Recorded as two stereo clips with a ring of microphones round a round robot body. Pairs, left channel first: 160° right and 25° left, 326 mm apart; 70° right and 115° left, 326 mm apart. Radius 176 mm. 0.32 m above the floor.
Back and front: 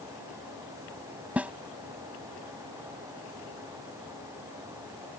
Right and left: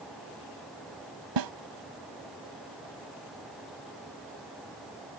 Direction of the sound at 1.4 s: 110° left.